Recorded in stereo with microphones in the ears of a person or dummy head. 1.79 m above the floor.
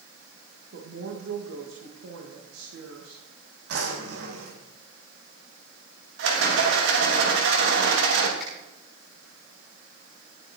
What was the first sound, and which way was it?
A woman speaking, 75° right (ahead or behind).